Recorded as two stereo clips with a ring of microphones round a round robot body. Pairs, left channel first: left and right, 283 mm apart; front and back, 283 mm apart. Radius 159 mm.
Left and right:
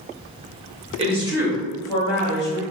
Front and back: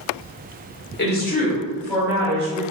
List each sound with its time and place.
1.0 s a woman speaking: 30° right, 1.2 m; by 2.6 s 130° left, 1.2 m